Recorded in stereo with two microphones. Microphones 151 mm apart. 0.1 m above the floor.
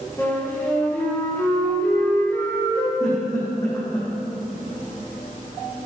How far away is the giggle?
About 4 m.